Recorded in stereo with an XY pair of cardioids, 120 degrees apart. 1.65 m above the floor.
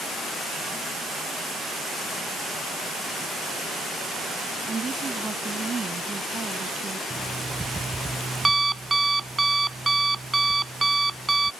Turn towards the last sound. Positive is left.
turn(degrees=-15)